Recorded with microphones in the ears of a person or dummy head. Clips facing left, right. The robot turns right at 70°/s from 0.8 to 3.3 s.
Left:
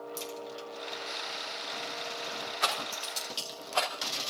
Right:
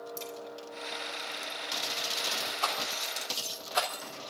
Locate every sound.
0.2 s a crack: 5° left (ahead or behind), 4.5 m; by 3.5 s centre (ahead or behind), 4.5 m
2.6 s a rattle: 25° left (ahead or behind), 3 m; by 3.9 s 20° right (ahead or behind), 3 m